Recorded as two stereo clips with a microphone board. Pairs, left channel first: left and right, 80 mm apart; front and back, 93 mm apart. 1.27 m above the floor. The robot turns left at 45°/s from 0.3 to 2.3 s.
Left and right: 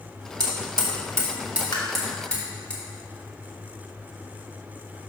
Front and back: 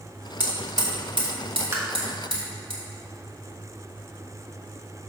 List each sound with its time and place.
0.4 s hammering: 110° right, 2 m; by 2.7 s 165° left, 2 m
1.7 s tapping: 120° left, 1.4 m; by 1.8 s 115° left, 1.4 m